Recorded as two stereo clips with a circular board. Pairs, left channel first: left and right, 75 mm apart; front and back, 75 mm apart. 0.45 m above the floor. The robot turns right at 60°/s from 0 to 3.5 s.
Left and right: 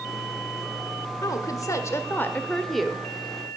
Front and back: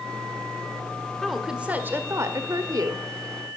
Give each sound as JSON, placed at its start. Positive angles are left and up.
{"t": 1.2, "sound": "a woman speaking", "azimuth_deg": 85, "distance_m": 1.2}